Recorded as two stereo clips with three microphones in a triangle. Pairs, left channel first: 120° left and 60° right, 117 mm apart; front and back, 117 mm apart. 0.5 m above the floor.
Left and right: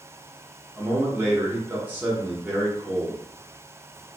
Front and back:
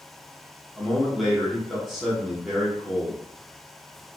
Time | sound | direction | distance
0.8 | a man speaking | 90° right | 0.9 m